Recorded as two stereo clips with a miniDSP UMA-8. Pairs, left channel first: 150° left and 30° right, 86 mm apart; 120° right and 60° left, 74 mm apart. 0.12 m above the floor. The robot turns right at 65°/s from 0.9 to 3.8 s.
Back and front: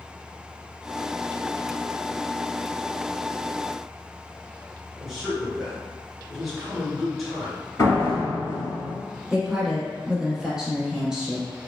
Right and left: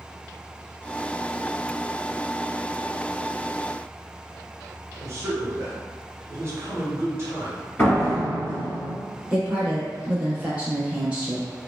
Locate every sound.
5.0 s a man speaking: 60° left, 1.3 m
7.8 s a door slam: 175° right, 1.6 m
9.3 s a woman speaking: 35° left, 1.0 m